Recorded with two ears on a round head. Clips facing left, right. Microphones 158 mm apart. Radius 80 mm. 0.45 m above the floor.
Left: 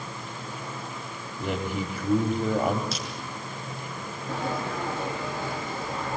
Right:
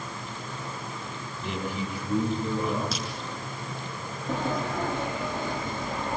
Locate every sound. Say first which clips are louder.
1.4 s a man speaking: left 3 dB; 45° left (ahead or behind), 2.5 m
2.9 s a crack: right 1 dB; 80° right, 7.5 m
4.3 s a sliding door: right 2 dB; 15° right (ahead or behind), 5 m